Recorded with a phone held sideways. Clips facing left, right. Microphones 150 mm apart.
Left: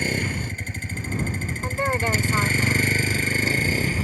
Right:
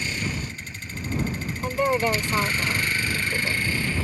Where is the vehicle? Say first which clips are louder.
Left 4 dB; 50° left (ahead or behind); by 4.0 s 40° left (ahead or behind).